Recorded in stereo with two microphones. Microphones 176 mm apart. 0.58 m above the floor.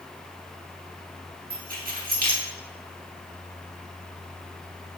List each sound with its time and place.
1.5 s keys jangling: 55° right (ahead or behind), 1.1 m